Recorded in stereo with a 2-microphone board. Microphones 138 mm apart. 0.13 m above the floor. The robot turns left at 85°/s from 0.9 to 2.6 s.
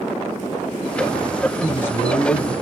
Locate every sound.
1.6 s a man speaking: straight behind, 2.5 m; by 2.5 s 105° left, 2.5 m